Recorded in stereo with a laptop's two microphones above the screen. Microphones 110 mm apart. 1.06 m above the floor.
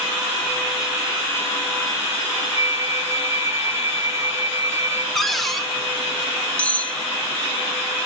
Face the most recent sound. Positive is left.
turn(degrees=10)  # may be behind; listen again after turning